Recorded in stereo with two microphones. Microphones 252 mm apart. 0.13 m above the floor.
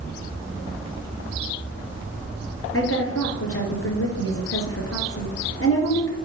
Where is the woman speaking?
55° left (ahead or behind), 2.5 m.